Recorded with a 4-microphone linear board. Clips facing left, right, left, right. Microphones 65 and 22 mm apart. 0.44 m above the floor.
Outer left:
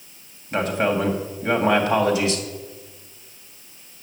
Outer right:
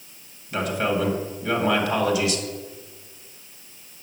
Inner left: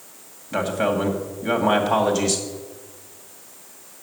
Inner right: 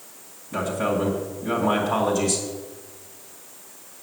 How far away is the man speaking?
About 2.5 m.